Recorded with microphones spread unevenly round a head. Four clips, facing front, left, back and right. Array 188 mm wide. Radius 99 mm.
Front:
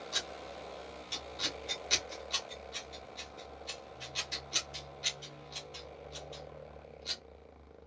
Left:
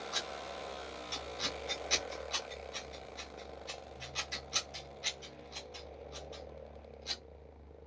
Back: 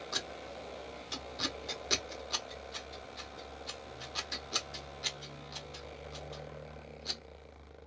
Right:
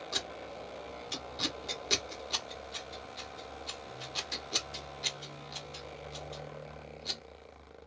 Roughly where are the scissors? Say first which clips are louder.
Even, back 1 dB; behind right.